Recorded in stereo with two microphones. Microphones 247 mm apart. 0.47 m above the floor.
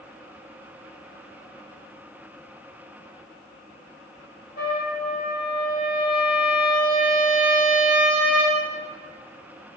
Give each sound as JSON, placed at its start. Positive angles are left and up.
{"t": 4.6, "sound": "a trumpet", "side_deg": 35, "distance_m": 0.7}